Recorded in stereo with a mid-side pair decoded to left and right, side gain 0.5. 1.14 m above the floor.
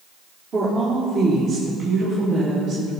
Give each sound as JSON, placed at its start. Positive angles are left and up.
{"t": 0.5, "sound": "a woman speaking", "azimuth_deg": -50, "distance_m": 3.0}